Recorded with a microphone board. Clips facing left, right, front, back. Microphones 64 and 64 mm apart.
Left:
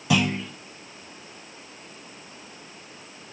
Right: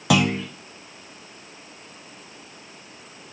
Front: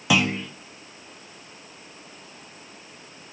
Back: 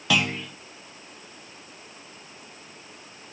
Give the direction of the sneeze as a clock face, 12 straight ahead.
I don't hear a sneeze.